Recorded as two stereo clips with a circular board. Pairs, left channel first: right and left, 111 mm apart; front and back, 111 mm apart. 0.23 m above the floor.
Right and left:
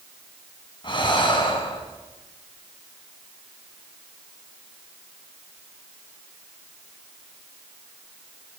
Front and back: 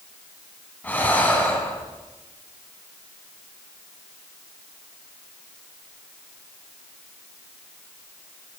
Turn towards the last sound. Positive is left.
turn(degrees=-70)